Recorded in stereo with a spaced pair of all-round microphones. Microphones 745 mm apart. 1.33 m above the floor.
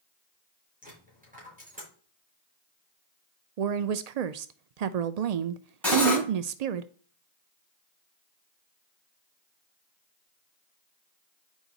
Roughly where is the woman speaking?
Right.